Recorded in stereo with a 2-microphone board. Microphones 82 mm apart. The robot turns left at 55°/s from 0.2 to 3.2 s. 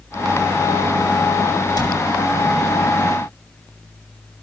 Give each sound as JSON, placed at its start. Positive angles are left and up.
{"t": 1.8, "sound": "a cupboard door", "side_deg": 55, "distance_m": 5.5}